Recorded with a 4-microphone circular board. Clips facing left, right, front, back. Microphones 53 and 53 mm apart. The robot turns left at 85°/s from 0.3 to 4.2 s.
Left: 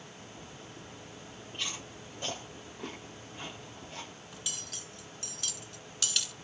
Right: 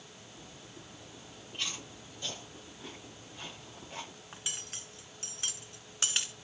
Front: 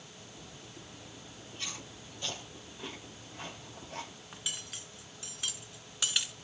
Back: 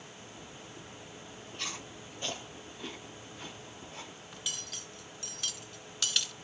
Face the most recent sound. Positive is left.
turn(degrees=-60)